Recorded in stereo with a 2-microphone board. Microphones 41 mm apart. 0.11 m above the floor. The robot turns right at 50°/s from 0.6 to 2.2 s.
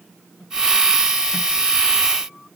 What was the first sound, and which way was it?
Only background noise.